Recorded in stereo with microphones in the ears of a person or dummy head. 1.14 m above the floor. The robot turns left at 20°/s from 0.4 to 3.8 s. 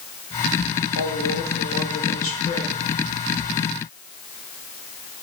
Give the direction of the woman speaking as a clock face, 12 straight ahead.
10 o'clock.